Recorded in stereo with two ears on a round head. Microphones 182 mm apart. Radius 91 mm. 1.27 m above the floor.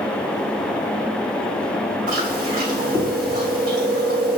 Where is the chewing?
45° right (ahead or behind), 4.5 m.